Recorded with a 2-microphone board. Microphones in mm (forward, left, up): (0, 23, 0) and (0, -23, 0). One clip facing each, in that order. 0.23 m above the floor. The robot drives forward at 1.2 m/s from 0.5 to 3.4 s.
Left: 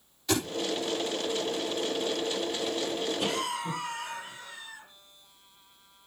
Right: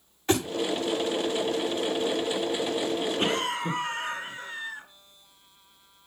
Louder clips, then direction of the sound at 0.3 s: Right 4 dB; 35° right (ahead or behind).